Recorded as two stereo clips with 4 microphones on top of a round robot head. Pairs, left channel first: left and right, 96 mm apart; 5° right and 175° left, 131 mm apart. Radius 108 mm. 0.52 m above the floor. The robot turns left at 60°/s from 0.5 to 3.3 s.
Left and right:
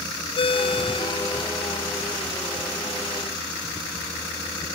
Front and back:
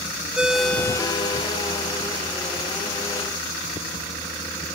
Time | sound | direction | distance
0.4 | a ringtone | 95° left | 0.6 m